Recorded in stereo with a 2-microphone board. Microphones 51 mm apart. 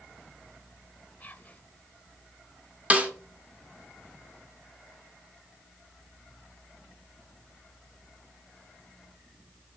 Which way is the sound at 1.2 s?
25° left (ahead or behind).